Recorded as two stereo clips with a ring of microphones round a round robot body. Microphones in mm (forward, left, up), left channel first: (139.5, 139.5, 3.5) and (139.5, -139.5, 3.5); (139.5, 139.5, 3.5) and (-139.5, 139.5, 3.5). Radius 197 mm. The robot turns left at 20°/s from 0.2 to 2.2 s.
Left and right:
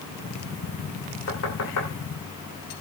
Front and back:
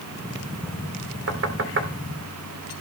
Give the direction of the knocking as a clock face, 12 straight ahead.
7 o'clock.